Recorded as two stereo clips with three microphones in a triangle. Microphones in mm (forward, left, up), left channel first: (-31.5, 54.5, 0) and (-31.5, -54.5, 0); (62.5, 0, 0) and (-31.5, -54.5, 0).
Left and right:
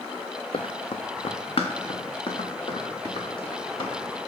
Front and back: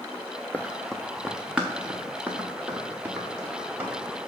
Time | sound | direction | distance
0.5 | running footsteps | 100° left | 0.6 m